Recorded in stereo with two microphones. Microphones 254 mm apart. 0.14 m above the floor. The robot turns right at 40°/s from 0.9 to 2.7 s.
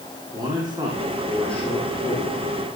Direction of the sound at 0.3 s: 20° right.